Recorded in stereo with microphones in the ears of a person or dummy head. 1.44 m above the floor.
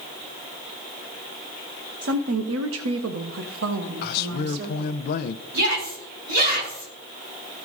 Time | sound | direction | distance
2.0 | a woman speaking | 55° right (ahead or behind) | 0.7 m
4.0 | a man speaking | 60° left (ahead or behind) | 0.6 m
5.5 | a shout | 65° right (ahead or behind) | 5.5 m